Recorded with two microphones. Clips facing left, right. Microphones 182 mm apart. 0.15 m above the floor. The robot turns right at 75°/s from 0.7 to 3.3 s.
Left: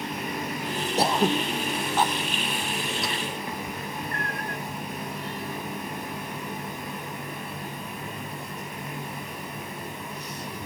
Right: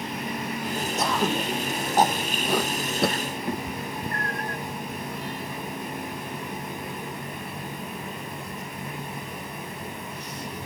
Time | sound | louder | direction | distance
1.0 | throat clearing | left 3 dB | 35° left (ahead or behind) | ?
3.5 | a cat meowing | right 3 dB | 40° right (ahead or behind) | ?